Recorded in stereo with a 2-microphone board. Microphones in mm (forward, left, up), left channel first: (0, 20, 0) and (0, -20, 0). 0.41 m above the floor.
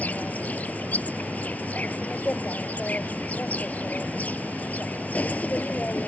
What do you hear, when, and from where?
0.0 s an insect: 45° left (ahead or behind)